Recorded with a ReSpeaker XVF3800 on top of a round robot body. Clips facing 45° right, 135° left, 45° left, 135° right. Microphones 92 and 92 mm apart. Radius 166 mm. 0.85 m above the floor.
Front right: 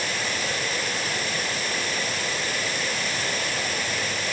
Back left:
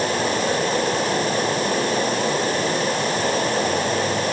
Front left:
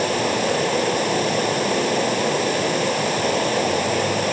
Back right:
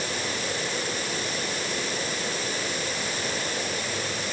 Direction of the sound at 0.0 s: 80° left.